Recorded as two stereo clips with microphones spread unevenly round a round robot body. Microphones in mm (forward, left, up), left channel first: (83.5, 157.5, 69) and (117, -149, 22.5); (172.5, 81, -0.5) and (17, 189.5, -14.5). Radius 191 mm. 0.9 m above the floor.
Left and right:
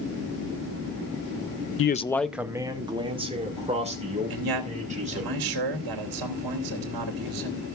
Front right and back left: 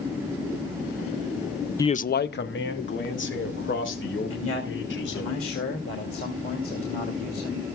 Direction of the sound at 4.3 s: 90° right.